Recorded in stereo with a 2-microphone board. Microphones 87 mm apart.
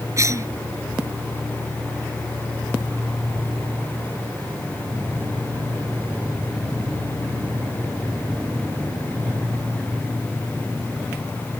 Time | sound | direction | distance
0.2 | a cough | 35° right (ahead or behind) | ?